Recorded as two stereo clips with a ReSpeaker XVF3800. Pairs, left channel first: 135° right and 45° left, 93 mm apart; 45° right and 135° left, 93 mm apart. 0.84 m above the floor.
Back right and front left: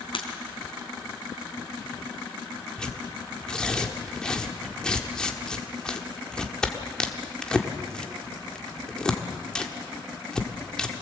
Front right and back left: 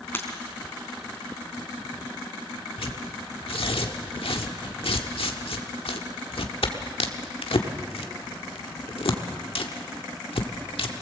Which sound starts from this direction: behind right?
Breaking glass, at 0.1 s.